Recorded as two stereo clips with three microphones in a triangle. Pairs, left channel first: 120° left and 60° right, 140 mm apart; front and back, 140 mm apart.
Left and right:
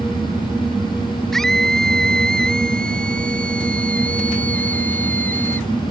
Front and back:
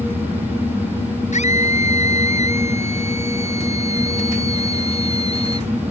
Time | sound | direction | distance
1.3 | a scream | 35° left | ?